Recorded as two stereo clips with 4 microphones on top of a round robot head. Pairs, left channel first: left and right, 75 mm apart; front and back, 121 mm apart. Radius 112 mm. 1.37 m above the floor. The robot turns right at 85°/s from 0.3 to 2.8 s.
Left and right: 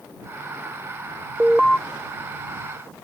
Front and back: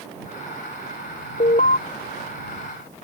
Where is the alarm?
15° right; by 1.8 s 15° left.